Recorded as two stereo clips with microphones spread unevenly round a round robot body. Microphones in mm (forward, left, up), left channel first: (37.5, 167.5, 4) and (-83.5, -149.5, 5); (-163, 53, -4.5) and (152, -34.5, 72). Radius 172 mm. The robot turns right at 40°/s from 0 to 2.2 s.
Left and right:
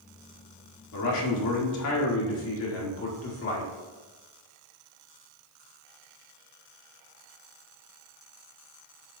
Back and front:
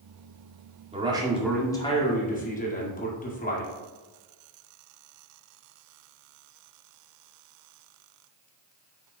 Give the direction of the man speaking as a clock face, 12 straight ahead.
10 o'clock.